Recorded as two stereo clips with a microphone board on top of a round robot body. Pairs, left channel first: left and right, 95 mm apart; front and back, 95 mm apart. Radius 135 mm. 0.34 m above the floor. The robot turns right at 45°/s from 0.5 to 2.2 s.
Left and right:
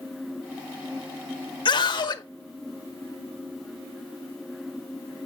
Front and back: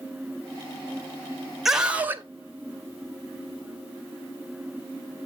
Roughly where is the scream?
Left.